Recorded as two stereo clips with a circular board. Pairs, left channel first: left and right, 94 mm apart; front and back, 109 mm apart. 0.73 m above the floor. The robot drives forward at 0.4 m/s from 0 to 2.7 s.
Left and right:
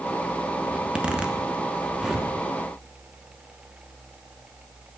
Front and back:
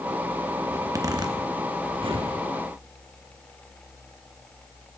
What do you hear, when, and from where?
0.7 s a zipper: 155° right, 0.6 m; by 2.3 s 170° right, 1.1 m